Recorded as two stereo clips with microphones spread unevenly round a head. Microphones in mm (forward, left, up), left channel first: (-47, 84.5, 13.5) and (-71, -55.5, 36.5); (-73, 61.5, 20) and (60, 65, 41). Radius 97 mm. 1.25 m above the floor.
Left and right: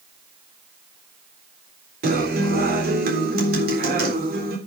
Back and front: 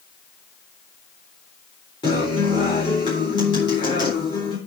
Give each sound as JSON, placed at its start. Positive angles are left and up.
{"t": 2.0, "sound": "a guitar", "azimuth_deg": -110, "distance_m": 4.0}